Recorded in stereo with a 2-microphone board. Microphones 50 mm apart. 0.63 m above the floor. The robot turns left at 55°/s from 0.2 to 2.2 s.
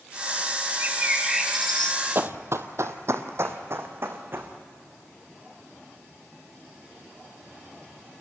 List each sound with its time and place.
0.8 s a bird: 135° right, 1.9 m; by 2.0 s 155° left, 1.9 m
2.1 s running footsteps: 50° right (ahead or behind), 1.1 m; by 4.5 s 45° right (ahead or behind), 3 m